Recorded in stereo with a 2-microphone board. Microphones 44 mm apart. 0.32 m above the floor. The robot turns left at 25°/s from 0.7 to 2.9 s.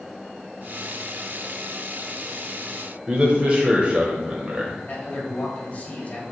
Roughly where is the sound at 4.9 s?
Left.